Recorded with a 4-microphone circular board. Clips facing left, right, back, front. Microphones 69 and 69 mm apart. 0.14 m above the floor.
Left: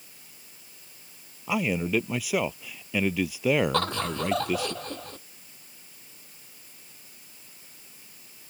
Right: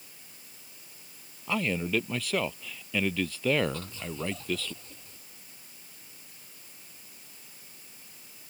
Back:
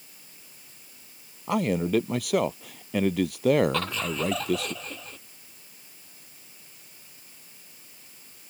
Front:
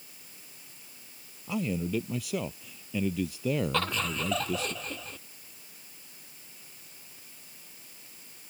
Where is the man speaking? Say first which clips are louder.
Left 3 dB, back 7 dB; 170° left.